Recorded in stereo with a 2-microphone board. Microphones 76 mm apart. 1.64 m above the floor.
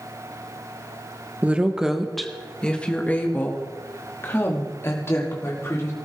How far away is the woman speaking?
About 1.2 m.